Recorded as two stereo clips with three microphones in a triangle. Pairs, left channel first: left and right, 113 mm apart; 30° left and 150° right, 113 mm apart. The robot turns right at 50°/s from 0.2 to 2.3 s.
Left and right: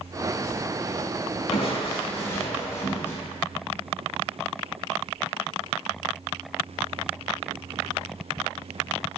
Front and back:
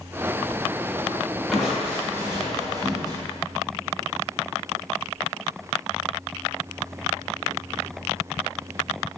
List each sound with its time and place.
1.5 s crushing: 120° left, 1.0 m; by 3.2 s 160° left, 1.0 m